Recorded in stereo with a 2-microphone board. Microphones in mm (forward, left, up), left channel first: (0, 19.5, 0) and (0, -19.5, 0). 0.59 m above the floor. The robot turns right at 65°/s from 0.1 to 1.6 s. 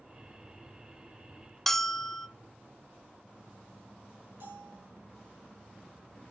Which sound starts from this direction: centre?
A bell, at 1.7 s.